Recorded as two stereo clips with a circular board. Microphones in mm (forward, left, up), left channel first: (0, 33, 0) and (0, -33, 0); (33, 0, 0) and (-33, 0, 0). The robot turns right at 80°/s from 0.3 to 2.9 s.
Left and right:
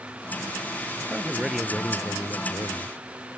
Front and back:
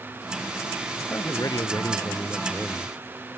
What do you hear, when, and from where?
1.0 s a man speaking: 50° right; by 3.4 s 105° left